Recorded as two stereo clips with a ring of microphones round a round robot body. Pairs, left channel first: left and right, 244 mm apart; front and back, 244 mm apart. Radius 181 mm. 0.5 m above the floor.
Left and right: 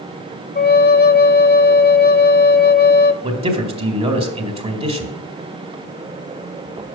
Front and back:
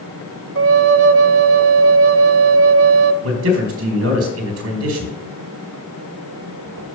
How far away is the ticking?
No ticking in this recording.